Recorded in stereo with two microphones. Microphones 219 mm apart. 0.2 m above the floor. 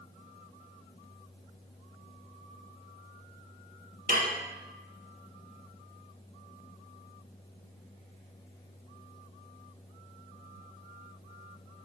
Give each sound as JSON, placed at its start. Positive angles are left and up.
{"t": 4.1, "sound": "dishes clattering", "side_deg": -40, "distance_m": 1.3}